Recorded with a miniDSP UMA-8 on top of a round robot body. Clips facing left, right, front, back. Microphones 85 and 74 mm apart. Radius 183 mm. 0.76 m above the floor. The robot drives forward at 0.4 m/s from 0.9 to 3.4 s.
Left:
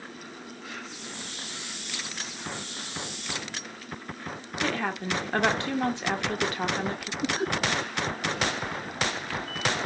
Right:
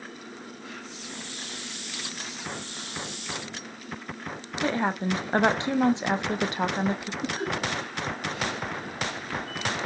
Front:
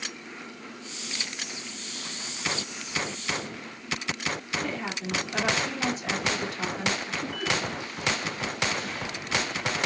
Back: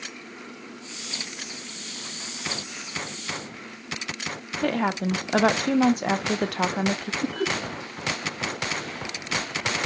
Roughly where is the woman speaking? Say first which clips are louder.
Right 3 dB, back 8 dB; behind.